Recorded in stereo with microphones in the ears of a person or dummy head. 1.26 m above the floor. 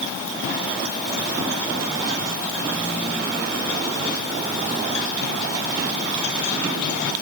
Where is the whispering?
I don't hear whispering.